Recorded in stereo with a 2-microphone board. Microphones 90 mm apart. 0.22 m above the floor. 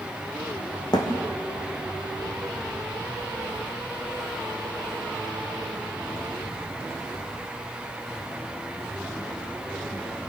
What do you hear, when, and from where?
0.9 s a thud: 50° left (ahead or behind), 4.5 m